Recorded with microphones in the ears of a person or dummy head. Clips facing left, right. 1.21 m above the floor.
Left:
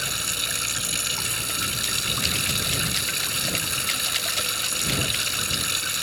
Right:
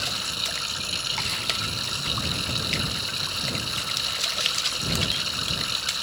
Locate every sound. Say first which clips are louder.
0.0 s running water: even; 30° left (ahead or behind)